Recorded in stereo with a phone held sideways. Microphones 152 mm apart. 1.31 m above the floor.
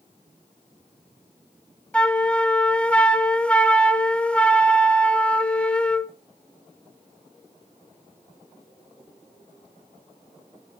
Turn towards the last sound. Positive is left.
turn(degrees=5)  # may be behind; listen again after turning